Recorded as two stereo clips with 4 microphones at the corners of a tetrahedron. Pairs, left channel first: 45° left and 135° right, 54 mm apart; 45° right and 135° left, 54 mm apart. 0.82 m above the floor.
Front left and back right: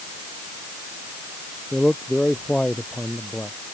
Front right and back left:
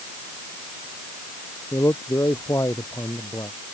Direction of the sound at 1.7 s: 30° right.